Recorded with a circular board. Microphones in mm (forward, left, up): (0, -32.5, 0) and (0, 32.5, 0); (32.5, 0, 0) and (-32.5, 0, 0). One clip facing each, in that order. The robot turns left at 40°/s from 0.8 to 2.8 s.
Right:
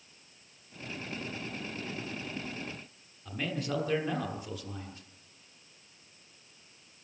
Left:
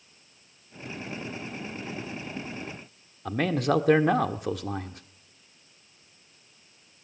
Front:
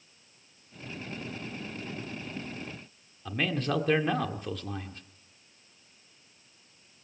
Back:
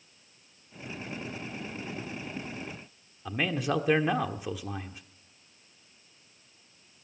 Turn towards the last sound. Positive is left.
turn(degrees=100)